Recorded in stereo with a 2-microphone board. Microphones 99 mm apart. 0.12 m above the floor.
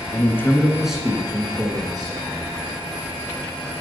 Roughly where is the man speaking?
Left.